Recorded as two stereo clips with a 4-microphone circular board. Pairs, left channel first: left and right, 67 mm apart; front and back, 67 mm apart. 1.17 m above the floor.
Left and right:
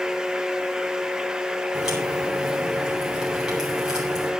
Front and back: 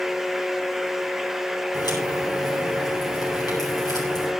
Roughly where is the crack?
Ahead.